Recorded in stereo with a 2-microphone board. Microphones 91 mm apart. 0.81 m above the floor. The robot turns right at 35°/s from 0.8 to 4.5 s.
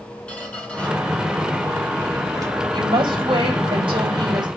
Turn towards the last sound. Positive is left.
turn(degrees=-60)